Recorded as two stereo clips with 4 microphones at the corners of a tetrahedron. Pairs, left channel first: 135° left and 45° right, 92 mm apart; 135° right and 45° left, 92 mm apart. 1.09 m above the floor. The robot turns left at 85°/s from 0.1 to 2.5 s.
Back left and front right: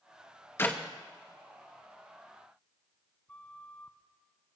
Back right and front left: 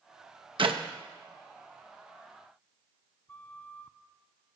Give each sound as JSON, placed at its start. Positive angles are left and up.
{"t": 0.6, "sound": "a clap", "azimuth_deg": 70, "distance_m": 1.0}
{"t": 3.3, "sound": "a flute", "azimuth_deg": 180, "distance_m": 0.6}